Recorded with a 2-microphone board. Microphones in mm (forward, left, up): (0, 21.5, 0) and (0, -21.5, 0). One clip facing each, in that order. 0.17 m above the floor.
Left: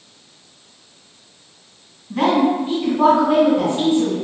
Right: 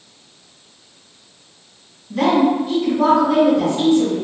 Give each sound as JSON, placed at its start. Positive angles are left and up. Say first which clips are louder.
{"t": 2.1, "sound": "a woman speaking", "louder": "right 1 dB", "side_deg": 30, "distance_m": 1.9}